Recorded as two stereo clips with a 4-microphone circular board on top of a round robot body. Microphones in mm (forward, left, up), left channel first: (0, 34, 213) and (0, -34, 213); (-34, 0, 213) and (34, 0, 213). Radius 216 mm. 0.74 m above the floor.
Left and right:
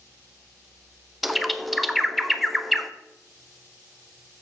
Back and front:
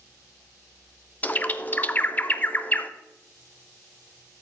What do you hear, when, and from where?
1.2 s a bird: 175° right, 0.8 m